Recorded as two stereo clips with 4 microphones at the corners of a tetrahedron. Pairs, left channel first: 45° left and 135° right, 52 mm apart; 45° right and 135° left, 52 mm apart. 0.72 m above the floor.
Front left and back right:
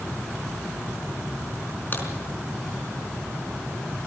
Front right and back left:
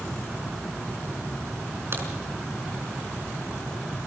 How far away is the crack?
About 4.5 m.